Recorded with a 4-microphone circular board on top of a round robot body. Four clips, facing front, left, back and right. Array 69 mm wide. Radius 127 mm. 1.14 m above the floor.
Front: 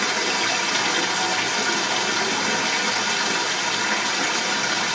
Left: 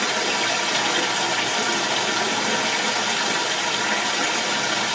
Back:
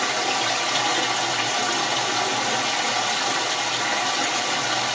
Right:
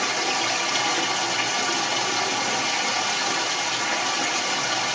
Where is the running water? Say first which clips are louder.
Left 2 dB, even; 55° left, 1.7 m.